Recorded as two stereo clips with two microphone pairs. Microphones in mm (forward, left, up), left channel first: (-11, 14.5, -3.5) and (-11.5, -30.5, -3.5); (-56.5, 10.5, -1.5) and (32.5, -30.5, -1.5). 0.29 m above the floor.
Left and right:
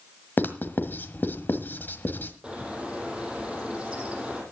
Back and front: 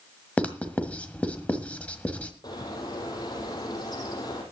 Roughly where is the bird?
Behind.